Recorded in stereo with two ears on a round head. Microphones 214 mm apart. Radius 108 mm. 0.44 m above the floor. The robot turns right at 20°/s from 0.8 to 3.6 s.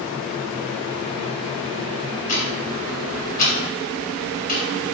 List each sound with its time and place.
2.3 s ticking: 35° left (ahead or behind), 0.7 m